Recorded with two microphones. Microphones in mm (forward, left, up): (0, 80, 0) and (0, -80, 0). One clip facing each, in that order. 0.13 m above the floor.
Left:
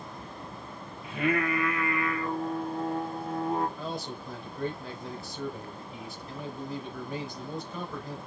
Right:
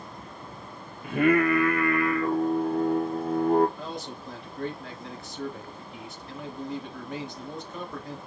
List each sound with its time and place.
1.0 s singing: 55° right (ahead or behind), 0.8 m
3.8 s a man speaking: centre (ahead or behind), 2 m